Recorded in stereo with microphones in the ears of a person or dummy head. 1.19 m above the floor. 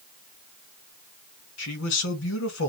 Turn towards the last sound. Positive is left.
turn(degrees=90)